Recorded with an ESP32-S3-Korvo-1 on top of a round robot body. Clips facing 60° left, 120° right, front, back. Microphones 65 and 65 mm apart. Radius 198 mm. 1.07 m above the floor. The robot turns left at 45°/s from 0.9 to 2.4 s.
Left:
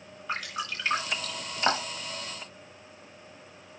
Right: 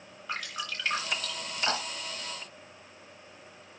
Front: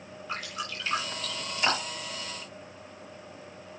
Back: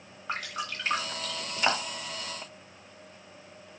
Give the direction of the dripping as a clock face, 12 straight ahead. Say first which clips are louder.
Left 3 dB, back 2 dB; 7 o'clock.